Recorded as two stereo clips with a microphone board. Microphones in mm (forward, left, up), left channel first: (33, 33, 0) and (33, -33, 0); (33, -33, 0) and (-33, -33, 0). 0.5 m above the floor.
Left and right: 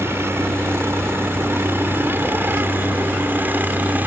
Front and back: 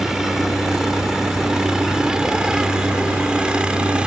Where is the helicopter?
100° right; by 4.1 s 120° right.